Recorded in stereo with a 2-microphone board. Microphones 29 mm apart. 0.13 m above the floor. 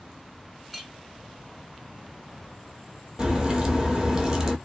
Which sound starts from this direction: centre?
A clink, at 0.7 s.